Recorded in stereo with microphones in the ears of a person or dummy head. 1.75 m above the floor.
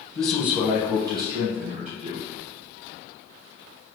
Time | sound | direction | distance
0.1 | a man speaking | 25° left (ahead or behind) | 0.8 m